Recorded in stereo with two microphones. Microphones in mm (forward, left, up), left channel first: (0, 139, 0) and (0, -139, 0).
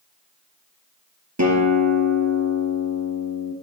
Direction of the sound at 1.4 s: 80° right.